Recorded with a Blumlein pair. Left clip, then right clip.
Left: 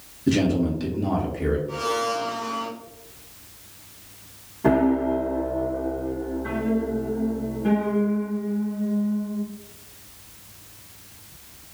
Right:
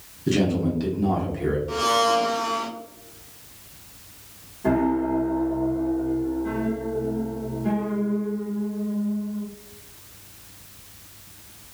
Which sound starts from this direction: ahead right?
A blender, at 1.7 s.